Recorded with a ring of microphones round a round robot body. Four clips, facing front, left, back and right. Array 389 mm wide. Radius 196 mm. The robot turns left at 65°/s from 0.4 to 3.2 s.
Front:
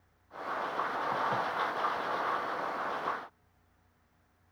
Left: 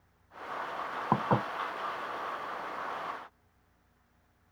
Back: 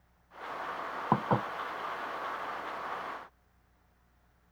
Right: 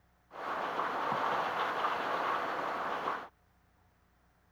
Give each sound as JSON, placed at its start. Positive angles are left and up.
{"t": 1.1, "sound": "dishes clattering", "azimuth_deg": 145}